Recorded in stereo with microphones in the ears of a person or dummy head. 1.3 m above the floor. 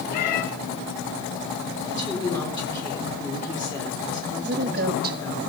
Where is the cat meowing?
55° left (ahead or behind), 1.3 m.